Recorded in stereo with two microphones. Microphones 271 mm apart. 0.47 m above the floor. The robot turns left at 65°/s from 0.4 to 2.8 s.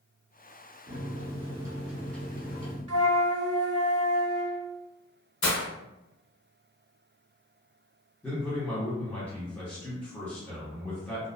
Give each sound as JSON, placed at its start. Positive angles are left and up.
{"t": 0.9, "sound": "a microwave", "azimuth_deg": -105, "distance_m": 0.7}
{"t": 2.9, "sound": "a flute", "side_deg": -60, "distance_m": 0.5}
{"t": 5.4, "sound": "breaking glass", "side_deg": 75, "distance_m": 0.7}
{"t": 8.2, "sound": "a man speaking", "side_deg": 5, "distance_m": 0.9}